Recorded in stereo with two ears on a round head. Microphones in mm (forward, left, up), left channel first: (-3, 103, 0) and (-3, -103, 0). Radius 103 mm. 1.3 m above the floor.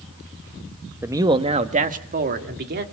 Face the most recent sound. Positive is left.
turn(degrees=-45)  # may be behind; listen again after turning